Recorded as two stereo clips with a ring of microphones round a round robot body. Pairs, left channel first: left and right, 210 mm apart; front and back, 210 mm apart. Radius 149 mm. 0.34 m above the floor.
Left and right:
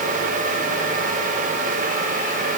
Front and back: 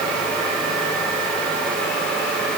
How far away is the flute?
No flute in this recording.